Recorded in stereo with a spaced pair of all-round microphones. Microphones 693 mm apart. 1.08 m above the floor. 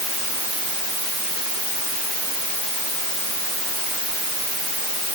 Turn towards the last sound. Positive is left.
No sound to turn to.